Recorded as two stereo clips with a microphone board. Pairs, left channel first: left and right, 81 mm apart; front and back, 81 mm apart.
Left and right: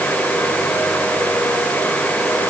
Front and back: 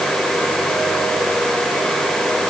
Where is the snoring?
I don't hear snoring.